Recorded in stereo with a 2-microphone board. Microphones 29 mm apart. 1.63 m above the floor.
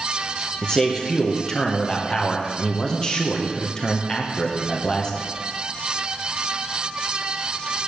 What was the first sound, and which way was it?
A man speaking, 25° left (ahead or behind).